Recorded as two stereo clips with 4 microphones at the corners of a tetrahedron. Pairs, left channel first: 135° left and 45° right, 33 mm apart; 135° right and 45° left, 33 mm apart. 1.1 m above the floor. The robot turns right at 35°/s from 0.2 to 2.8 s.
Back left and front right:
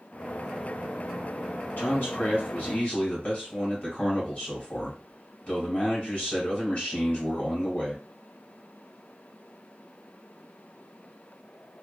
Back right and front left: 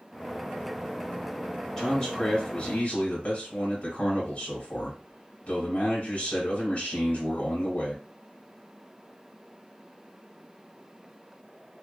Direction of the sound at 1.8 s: 150° left.